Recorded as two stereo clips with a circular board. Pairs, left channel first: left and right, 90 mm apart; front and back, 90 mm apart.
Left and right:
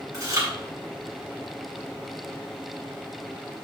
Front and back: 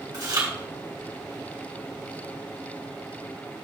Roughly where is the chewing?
Behind right.